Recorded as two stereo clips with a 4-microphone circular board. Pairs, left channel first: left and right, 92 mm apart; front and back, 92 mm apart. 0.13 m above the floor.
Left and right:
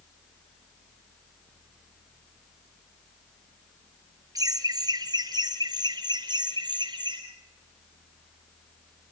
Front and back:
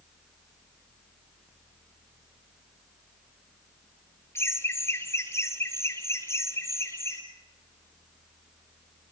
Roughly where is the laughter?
Ahead right.